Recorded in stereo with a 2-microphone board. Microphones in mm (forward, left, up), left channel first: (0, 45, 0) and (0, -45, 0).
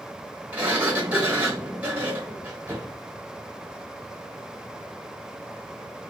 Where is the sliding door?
20° right (ahead or behind), 1.2 m.